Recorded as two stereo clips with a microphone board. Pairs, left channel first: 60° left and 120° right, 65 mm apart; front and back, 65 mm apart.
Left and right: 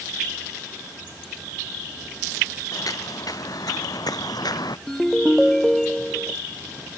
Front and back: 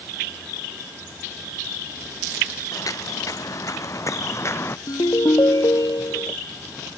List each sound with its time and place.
2.7 s footsteps: 30° left; by 4.8 s 50° left
4.9 s a ringtone: 25° right